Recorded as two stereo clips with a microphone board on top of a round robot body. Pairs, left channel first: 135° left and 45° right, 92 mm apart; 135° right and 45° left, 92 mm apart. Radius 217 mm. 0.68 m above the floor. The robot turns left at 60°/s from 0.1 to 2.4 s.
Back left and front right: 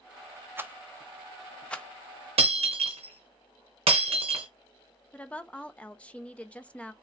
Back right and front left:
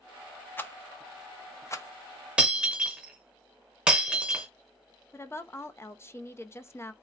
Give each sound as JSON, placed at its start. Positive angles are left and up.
{"t": 0.6, "sound": "a rattle", "azimuth_deg": -90, "distance_m": 0.9}
{"t": 2.4, "sound": "breaking glass", "azimuth_deg": -30, "distance_m": 0.6}
{"t": 5.1, "sound": "a woman speaking", "azimuth_deg": -160, "distance_m": 0.8}